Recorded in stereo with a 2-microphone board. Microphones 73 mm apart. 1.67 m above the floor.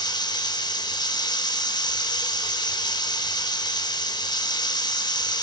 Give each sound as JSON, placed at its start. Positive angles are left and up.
{"t": 0.0, "sound": "running water", "side_deg": 80, "distance_m": 5.0}